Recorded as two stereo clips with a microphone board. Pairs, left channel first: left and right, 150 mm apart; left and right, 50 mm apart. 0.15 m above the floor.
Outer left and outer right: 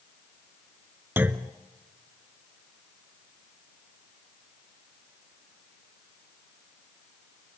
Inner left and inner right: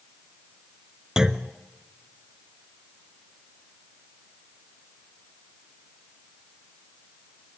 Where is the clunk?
15° right (ahead or behind), 0.7 m.